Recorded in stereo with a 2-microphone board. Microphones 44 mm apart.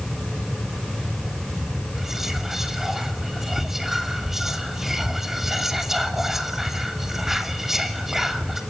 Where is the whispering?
5° right (ahead or behind), 2.5 m.